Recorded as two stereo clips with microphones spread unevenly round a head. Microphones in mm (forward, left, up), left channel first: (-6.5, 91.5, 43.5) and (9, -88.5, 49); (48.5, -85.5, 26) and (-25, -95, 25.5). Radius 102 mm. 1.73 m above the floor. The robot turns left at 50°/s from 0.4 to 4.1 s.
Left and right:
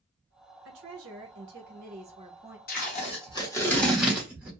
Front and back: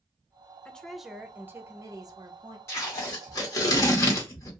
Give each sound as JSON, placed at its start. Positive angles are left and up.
{"t": 0.7, "sound": "a woman speaking", "azimuth_deg": -65, "distance_m": 0.9}
{"t": 2.7, "sound": "tape being pulled", "azimuth_deg": 65, "distance_m": 0.8}